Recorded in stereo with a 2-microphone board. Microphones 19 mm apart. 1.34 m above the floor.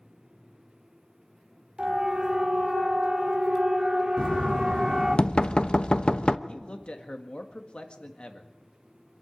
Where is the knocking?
65° left (ahead or behind), 0.9 m.